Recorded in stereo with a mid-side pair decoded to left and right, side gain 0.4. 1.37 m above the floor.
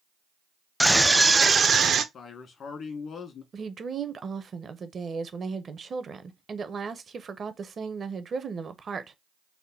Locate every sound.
0.8 s a scream: straight ahead, 0.6 m; by 2.0 s 60° right, 0.7 m
2.1 s a man speaking: 65° left, 1.3 m
3.5 s a woman speaking: 45° right, 0.8 m